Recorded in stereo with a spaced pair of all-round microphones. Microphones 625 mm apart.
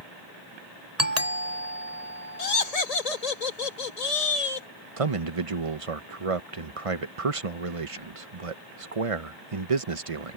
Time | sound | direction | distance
1.0 | a doorbell | 70° right (ahead or behind) | ?
2.4 | laughter | 65° left (ahead or behind) | ?
5.0 | a man speaking | 55° right (ahead or behind) | ?